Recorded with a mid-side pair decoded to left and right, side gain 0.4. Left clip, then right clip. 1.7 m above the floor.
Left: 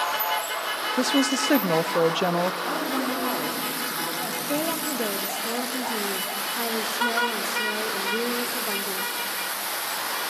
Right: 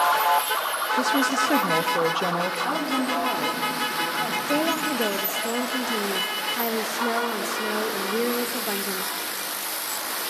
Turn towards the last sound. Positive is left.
turn(degrees=-20)